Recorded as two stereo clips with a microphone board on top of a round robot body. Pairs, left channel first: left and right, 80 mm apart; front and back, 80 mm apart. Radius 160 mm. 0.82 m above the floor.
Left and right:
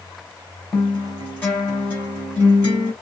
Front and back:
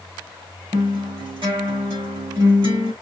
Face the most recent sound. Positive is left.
turn(degrees=160)